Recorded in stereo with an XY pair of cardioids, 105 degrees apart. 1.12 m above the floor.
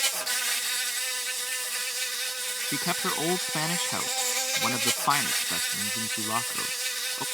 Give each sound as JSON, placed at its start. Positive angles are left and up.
{"t": 0.0, "sound": "an insect", "azimuth_deg": -10}
{"t": 2.7, "sound": "a man speaking", "azimuth_deg": 20}